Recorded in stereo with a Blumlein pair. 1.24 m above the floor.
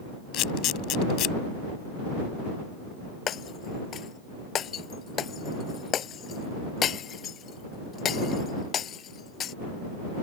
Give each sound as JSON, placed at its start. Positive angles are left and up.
{"t": 0.3, "sound": "a camera shutter", "azimuth_deg": 35}
{"t": 3.3, "sound": "breaking glass", "azimuth_deg": 25}